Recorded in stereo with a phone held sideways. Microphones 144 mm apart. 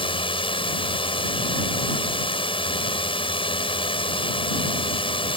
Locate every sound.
0.0 s a drone: 40° left (ahead or behind)